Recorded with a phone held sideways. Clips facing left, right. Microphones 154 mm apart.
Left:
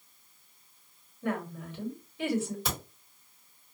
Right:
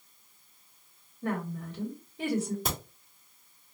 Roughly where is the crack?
Right.